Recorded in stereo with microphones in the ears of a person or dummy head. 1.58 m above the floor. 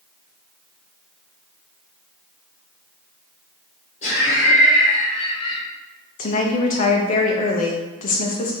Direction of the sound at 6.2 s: 40° left (ahead or behind).